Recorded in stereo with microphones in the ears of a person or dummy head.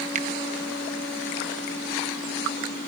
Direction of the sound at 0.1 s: 45° right (ahead or behind).